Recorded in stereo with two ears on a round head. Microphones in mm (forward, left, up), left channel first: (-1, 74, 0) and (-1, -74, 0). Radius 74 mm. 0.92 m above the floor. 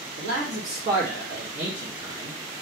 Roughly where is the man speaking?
Right.